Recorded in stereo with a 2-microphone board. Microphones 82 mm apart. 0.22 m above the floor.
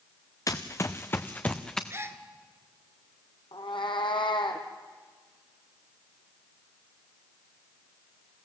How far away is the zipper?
I don't hear a zipper.